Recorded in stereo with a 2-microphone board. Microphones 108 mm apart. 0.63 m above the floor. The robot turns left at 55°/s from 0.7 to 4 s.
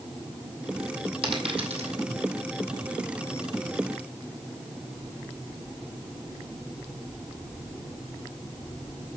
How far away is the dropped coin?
About 1.9 m.